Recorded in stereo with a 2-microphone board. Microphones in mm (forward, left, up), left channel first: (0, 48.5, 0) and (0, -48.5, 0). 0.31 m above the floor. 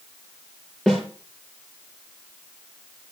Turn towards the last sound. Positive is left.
turn(degrees=5)  # may be behind; listen again after turning